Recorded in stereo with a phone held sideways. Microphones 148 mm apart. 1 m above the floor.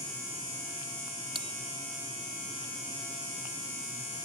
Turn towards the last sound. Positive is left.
turn(degrees=-40)  # may be behind; listen again after turning